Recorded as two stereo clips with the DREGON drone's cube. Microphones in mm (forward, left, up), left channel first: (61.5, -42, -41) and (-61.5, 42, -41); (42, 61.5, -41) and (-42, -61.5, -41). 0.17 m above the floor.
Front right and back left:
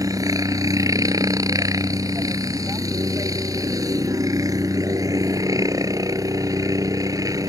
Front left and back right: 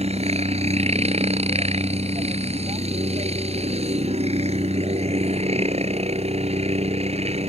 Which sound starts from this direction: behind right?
A helicopter, at 0.0 s.